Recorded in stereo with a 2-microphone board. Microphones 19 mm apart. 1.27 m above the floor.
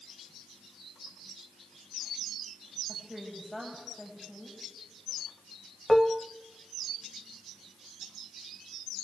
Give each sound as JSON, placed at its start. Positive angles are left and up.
{"t": 2.9, "sound": "a woman speaking", "side_deg": 0, "distance_m": 8.0}
{"t": 5.9, "sound": "dishes clattering", "side_deg": 5, "distance_m": 0.8}